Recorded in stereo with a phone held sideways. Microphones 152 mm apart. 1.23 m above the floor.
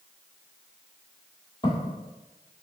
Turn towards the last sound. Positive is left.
turn(degrees=30)  # may be behind; listen again after turning